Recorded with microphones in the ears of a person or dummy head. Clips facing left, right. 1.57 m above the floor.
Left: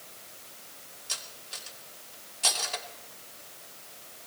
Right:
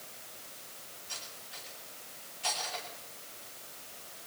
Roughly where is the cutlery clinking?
Left.